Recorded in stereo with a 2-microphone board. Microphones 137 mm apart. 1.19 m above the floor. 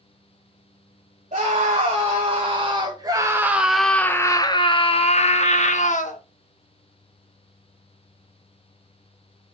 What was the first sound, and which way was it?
A scream, 55° right (ahead or behind).